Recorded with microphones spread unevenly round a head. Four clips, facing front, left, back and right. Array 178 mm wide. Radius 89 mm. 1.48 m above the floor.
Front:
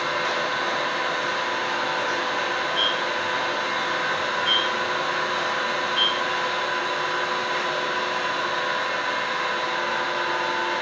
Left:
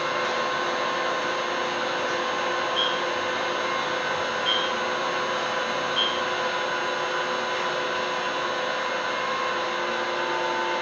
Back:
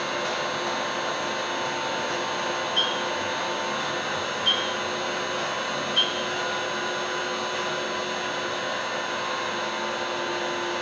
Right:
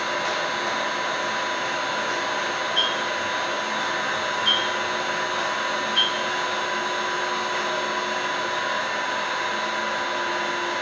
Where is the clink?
170° left, 1.1 m.